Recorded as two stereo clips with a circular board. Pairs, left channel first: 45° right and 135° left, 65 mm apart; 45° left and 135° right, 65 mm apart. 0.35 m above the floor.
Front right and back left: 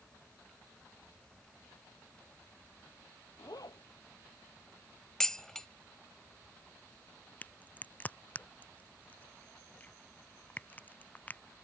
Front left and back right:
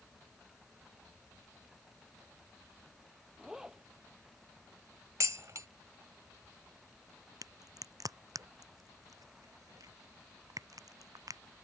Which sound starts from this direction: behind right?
Dishes clattering, at 5.2 s.